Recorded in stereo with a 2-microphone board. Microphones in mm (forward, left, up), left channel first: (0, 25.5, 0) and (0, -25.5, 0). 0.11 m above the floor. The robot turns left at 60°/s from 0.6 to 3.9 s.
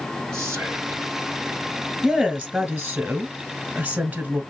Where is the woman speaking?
Centre (ahead or behind), 1.4 m; by 4.4 s 25° right (ahead or behind), 1.4 m.